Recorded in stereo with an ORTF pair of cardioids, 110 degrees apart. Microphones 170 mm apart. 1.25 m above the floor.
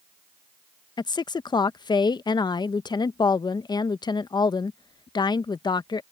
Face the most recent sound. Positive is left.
turn(degrees=25)